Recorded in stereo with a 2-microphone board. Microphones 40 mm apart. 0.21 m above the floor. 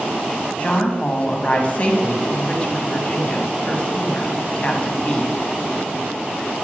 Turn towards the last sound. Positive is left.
turn(degrees=35)  # may be behind; listen again after turning